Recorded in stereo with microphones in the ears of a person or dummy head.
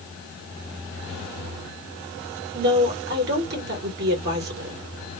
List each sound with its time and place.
2.5 s a woman speaking: 50° right (ahead or behind), 1.4 m